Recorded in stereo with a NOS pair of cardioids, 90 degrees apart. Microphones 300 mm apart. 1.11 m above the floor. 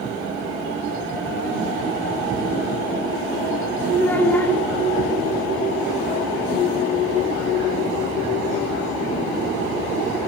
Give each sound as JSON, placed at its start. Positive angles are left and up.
{"t": 4.0, "sound": "a child speaking", "azimuth_deg": 5, "distance_m": 2.5}